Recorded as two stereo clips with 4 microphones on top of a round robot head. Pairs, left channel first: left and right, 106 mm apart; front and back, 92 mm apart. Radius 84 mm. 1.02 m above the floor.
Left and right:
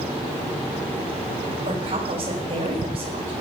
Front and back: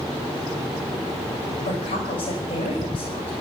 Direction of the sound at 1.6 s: 40° right.